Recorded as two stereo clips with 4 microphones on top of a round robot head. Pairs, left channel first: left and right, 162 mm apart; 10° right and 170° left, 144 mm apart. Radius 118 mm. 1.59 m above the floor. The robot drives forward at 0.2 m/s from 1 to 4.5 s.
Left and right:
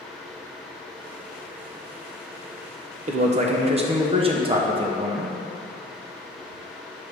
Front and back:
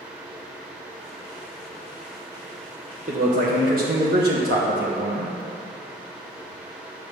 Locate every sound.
3.1 s a man speaking: 130° right, 0.7 m; by 5.3 s 145° right, 0.9 m